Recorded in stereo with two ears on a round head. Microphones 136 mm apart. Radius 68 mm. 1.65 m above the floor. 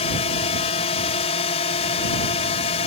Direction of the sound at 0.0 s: 40° left (ahead or behind).